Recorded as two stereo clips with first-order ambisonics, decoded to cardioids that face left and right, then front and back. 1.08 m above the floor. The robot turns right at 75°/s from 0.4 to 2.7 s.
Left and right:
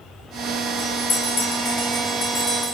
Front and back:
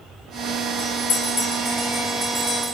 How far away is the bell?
About 1.6 m.